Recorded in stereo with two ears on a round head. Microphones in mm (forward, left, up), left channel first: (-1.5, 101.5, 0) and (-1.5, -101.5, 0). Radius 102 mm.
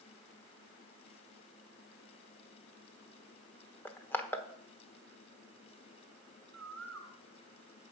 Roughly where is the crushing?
Centre.